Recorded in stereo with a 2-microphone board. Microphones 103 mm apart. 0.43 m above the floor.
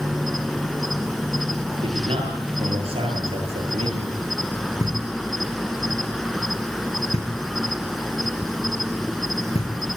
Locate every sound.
0.0 s an insect: centre (ahead or behind), 1.5 m
1.8 s a man speaking: 65° right (ahead or behind), 9.5 m
4.8 s knocking: 85° left, 6.5 m